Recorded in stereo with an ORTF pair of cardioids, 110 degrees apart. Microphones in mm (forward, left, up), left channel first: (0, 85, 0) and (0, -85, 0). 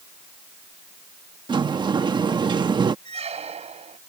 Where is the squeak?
40° right.